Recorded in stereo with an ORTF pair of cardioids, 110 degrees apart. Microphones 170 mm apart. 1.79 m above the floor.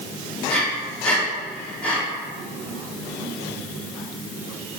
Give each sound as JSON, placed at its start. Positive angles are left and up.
{"t": 0.5, "sound": "breathing", "azimuth_deg": 5, "distance_m": 2.5}